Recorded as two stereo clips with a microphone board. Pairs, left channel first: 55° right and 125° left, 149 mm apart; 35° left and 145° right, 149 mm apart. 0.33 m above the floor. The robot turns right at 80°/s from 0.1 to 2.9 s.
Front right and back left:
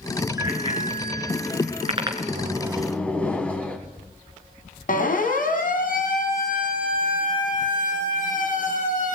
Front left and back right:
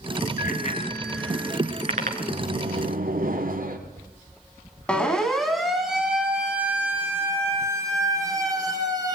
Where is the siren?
50° right, 3.5 m; by 9.2 s 85° right, 5 m.